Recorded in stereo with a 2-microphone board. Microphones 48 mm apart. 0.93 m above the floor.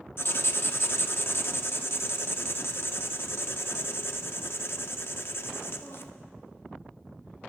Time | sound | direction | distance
0.2 | writing | 55° left (ahead or behind) | 0.8 m